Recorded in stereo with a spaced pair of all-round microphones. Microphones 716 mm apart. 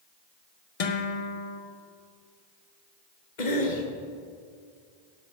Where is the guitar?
50° left (ahead or behind), 0.9 m.